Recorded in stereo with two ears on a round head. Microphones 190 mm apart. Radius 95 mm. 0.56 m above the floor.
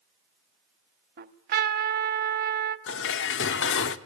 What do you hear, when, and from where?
1.2 s a trumpet: 45° right (ahead or behind), 0.8 m
2.9 s dishes clattering: 60° left (ahead or behind), 0.8 m